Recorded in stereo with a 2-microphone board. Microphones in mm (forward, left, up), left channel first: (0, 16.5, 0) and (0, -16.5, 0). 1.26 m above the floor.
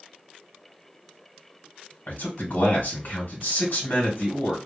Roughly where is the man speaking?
Left.